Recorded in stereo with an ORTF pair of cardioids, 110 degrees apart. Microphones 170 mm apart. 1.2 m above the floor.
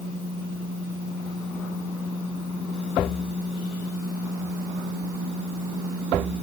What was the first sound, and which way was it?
Only background noise.